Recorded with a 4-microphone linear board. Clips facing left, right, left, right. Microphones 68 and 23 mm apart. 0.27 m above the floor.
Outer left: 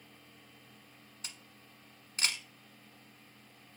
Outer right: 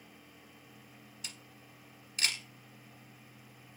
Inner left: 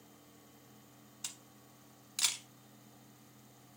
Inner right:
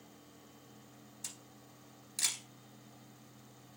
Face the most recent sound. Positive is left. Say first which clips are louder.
# even, inner left 2 dB
turn(degrees=35)  # may be behind; listen again after turning